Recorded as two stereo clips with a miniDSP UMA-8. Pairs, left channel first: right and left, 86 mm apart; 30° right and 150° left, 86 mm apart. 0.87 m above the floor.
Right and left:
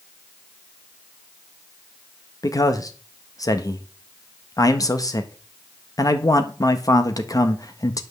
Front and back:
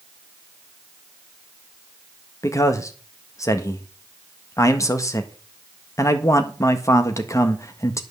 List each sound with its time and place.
2.4 s a man speaking: 65° right, 1.4 m